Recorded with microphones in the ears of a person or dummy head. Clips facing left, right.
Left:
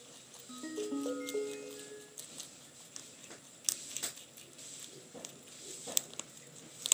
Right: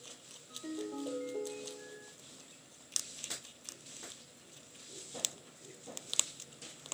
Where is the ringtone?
85° left, 1.2 m.